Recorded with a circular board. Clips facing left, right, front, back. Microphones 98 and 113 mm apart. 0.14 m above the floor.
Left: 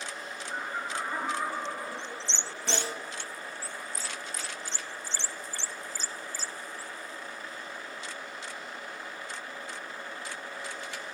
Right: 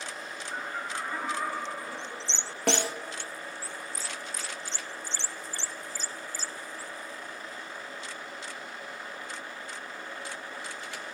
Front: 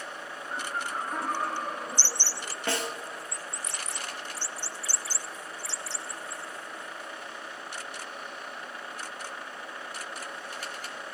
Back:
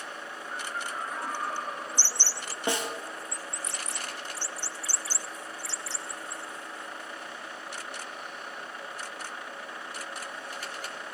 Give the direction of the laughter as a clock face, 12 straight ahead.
12 o'clock.